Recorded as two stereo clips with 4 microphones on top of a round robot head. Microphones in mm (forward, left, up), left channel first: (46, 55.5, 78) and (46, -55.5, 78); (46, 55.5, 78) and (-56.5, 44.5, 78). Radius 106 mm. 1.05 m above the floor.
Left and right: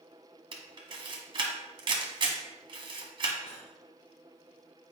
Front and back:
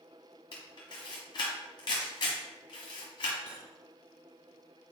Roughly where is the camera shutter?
Ahead right.